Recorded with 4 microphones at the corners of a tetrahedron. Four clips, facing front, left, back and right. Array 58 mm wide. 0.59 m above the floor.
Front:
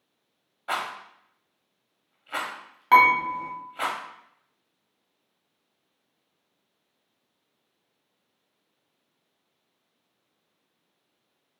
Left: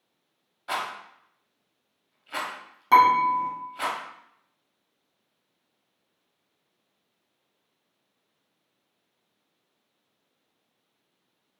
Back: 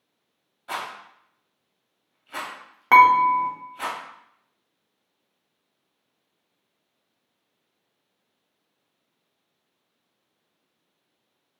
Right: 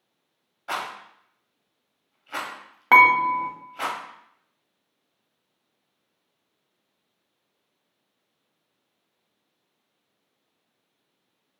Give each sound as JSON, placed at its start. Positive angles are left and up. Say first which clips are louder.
{"t": 0.7, "sound": "a rattle", "louder": "even, front 2 dB", "azimuth_deg": -15, "distance_m": 0.7}
{"t": 2.9, "sound": "dishes clattering", "louder": "right 2 dB, back 4 dB", "azimuth_deg": -115, "distance_m": 0.8}